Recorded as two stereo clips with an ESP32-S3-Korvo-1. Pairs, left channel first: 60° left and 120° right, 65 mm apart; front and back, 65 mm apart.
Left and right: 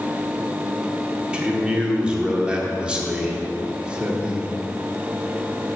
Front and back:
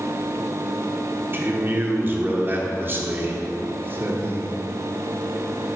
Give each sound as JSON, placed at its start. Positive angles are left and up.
{"t": 1.3, "sound": "a man speaking", "azimuth_deg": 180, "distance_m": 0.8}